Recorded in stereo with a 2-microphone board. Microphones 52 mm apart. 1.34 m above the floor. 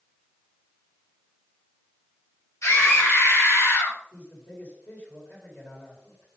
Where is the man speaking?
35° left (ahead or behind), 2.5 m.